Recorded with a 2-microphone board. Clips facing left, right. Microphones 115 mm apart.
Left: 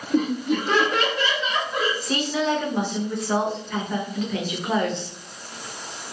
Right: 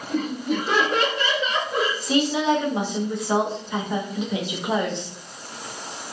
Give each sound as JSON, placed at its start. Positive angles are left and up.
{"t": 0.1, "sound": "laughter", "side_deg": 20, "distance_m": 1.0}
{"t": 2.0, "sound": "a woman speaking", "side_deg": -15, "distance_m": 0.8}